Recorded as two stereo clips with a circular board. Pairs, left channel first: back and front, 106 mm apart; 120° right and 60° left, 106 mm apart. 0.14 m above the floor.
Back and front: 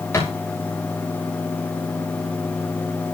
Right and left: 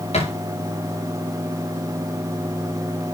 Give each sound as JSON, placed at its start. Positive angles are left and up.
{"t": 0.1, "sound": "a thud", "azimuth_deg": -115, "distance_m": 6.0}